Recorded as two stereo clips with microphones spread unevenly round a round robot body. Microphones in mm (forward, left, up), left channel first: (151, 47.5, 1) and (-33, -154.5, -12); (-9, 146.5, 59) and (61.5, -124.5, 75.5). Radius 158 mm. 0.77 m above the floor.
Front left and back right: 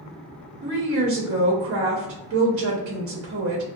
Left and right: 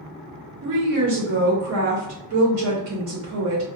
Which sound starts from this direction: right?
A woman speaking, at 0.6 s.